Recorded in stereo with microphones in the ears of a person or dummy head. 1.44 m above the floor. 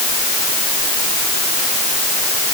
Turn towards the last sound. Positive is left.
No sound to turn to.